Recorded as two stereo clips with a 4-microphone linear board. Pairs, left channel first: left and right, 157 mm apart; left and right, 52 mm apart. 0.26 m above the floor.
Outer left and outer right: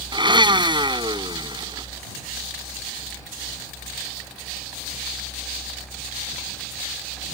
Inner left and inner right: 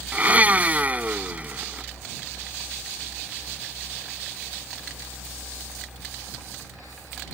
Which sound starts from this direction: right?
A blender, at 0.1 s.